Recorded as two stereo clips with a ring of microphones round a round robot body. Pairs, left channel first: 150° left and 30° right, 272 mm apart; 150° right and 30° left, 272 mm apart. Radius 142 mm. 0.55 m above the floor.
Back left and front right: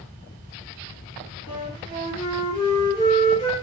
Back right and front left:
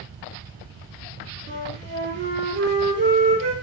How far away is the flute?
About 1.0 m.